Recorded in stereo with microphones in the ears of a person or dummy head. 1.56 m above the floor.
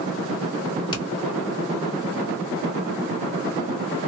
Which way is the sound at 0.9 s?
25° left (ahead or behind).